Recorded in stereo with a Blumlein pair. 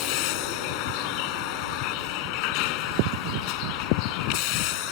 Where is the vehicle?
45° left.